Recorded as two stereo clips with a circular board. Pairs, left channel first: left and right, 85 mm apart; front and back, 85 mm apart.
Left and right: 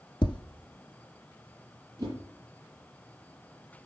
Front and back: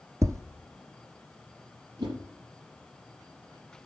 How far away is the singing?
No singing in this recording.